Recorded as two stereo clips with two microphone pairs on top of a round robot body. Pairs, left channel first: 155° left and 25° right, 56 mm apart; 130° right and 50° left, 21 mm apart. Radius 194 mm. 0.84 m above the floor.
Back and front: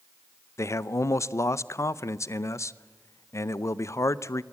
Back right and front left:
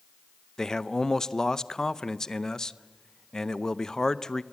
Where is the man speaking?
175° left, 0.8 m.